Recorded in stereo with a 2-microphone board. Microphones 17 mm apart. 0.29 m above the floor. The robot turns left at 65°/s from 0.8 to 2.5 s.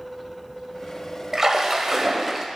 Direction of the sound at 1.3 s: 25° right (ahead or behind).